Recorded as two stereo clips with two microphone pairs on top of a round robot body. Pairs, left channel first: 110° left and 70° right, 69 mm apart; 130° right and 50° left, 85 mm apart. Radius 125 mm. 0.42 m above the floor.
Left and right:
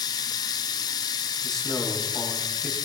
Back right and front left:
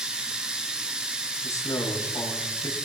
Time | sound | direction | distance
0.0 | running water | 135° left | 0.7 m
1.4 | a man speaking | straight behind | 4.5 m